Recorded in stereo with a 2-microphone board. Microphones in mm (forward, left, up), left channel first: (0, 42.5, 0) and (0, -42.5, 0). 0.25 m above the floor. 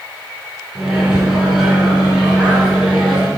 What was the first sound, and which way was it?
A microwave, 5° right (ahead or behind).